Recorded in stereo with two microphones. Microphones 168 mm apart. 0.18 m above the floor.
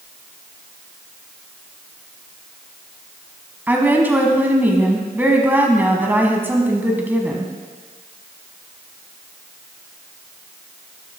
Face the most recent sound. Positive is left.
turn(degrees=-10)  # may be behind; listen again after turning